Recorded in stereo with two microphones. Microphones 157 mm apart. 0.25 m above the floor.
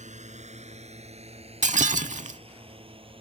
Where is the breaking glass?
50° right (ahead or behind).